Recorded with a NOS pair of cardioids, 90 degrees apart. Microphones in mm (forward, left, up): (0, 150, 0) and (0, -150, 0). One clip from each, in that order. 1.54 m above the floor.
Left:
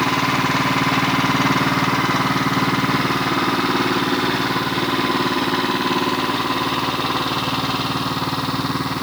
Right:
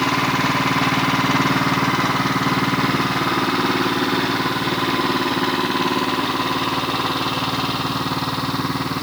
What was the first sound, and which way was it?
Only background noise.